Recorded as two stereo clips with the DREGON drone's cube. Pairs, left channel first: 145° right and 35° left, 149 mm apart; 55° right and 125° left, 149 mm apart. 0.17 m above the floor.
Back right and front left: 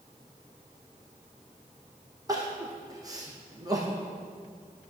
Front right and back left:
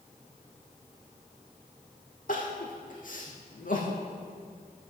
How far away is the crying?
About 2.5 m.